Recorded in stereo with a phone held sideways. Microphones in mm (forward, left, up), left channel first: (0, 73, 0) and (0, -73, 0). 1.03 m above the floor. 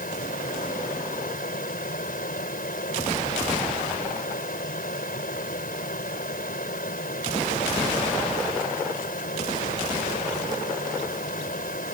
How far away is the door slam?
I don't hear a door slam.